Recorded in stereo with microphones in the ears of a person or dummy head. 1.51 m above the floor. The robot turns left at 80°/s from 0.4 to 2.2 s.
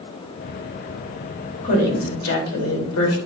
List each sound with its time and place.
1.6 s a woman speaking: 145° left, 3 m; by 3.2 s 100° left, 3 m